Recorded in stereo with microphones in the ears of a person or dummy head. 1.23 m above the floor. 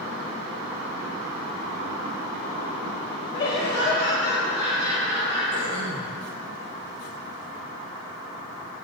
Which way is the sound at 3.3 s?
30° left (ahead or behind).